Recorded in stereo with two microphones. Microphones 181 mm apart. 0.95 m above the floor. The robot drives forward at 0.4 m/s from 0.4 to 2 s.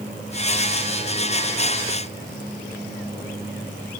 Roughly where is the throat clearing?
No throat clearing in this recording.